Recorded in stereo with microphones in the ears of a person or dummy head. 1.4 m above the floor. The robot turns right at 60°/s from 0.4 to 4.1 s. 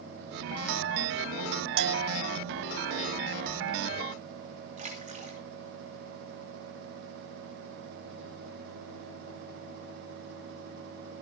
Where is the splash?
40° right (ahead or behind), 3 m.